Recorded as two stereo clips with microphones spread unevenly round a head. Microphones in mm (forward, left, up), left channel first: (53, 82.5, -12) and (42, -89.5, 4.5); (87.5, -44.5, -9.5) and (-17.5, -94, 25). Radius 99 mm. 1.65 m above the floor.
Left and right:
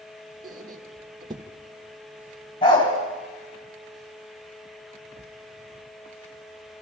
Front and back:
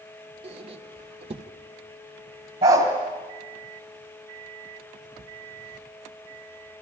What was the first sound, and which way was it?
A squeak, 160° right.